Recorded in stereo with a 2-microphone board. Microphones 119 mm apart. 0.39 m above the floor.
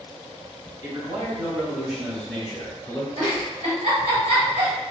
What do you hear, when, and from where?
0.8 s a man speaking: 30° right (ahead or behind), 1.3 m; by 3.1 s 25° left (ahead or behind), 0.9 m
3.2 s a giggle: 55° right (ahead or behind), 1.6 m